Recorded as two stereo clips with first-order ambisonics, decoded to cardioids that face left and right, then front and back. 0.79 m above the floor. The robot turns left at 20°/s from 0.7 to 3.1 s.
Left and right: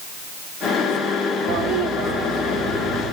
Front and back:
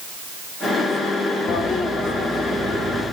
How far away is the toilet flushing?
About 3.5 m.